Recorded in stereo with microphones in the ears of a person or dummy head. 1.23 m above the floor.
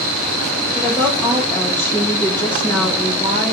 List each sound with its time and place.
0.8 s a woman speaking: 15° left (ahead or behind), 1.9 m